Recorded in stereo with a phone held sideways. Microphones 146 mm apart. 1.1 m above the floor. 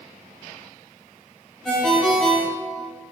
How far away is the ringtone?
About 0.5 m.